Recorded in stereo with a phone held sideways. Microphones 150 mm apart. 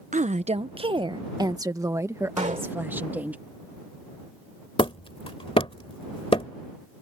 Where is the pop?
55° right (ahead or behind).